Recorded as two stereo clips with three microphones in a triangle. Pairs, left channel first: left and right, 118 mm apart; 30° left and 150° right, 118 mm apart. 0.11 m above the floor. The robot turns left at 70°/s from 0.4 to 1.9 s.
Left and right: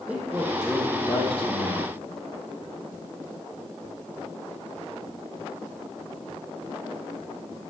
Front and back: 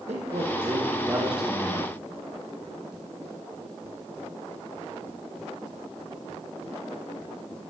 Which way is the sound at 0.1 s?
165° right.